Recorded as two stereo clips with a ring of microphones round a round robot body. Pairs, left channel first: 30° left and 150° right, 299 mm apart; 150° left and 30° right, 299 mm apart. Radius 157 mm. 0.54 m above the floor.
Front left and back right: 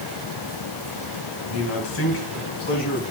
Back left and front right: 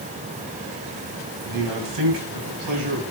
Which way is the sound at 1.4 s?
5° right.